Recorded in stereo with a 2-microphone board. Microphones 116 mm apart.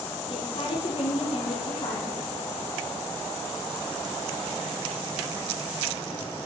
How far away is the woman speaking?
About 3.5 m.